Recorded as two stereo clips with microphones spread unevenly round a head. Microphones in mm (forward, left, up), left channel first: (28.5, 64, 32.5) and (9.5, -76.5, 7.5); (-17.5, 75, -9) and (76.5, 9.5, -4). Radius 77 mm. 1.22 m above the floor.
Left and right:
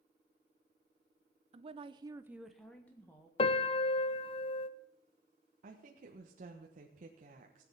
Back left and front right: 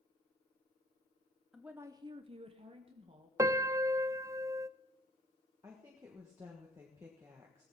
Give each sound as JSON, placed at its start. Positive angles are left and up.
{"t": 1.5, "sound": "a woman speaking", "azimuth_deg": -125, "distance_m": 0.9}
{"t": 3.4, "sound": "a piano", "azimuth_deg": 30, "distance_m": 0.5}
{"t": 5.6, "sound": "a woman speaking", "azimuth_deg": -105, "distance_m": 1.3}